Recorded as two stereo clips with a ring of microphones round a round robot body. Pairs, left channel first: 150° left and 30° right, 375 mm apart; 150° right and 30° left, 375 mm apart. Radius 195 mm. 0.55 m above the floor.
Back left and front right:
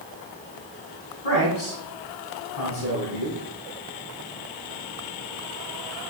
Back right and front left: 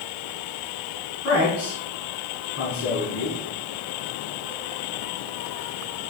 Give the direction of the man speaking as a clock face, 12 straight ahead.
7 o'clock.